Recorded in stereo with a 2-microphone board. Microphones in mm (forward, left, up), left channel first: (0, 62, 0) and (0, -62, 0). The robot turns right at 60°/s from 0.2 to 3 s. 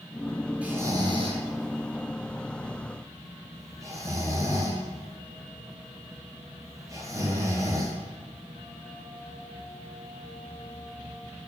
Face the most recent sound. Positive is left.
turn(degrees=-25)  # may be behind; listen again after turning